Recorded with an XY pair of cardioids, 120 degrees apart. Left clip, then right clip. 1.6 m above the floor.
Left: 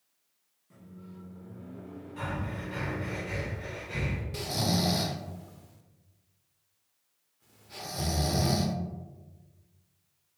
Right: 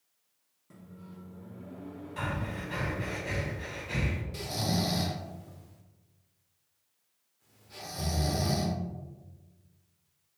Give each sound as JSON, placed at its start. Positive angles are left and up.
{"t": 0.7, "sound": "a microwave", "azimuth_deg": -55, "distance_m": 1.6}
{"t": 2.2, "sound": "breathing", "azimuth_deg": -55, "distance_m": 1.5}
{"t": 4.3, "sound": "snoring", "azimuth_deg": 20, "distance_m": 0.5}